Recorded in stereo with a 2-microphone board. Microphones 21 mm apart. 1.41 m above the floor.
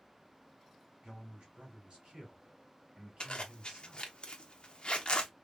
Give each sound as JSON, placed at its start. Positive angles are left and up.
{"t": 1.0, "sound": "a man speaking", "side_deg": -50, "distance_m": 2.0}
{"t": 3.2, "sound": "a zipper", "side_deg": 50, "distance_m": 0.8}